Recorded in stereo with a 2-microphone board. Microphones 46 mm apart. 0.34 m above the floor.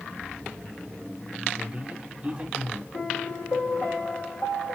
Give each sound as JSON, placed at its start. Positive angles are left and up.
{"t": 1.6, "sound": "a man speaking", "side_deg": -30, "distance_m": 1.1}
{"t": 2.9, "sound": "a piano", "side_deg": 55, "distance_m": 1.9}